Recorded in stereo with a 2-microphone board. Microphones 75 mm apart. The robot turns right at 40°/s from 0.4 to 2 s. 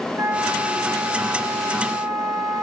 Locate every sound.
0.1 s a flute: 135° right, 3 m; by 2.6 s 70° right, 3 m